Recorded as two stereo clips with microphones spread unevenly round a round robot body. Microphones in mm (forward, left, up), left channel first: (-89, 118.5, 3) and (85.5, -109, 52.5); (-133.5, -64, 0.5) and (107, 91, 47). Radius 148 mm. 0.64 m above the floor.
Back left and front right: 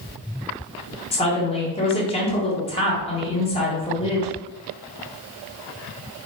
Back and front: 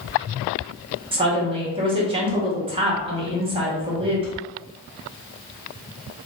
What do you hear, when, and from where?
1.1 s a woman speaking: 105° left, 1.1 m